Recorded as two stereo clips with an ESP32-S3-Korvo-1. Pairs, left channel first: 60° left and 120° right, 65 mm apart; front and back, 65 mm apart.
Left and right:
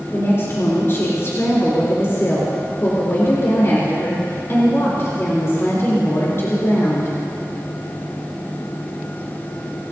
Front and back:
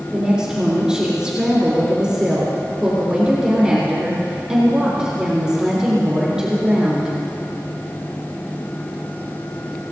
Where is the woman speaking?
105° left, 4 m.